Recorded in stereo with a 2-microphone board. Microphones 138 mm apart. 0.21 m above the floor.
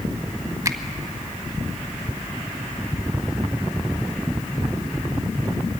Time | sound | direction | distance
0.7 | a finger snap | 25° right (ahead or behind) | 1.1 m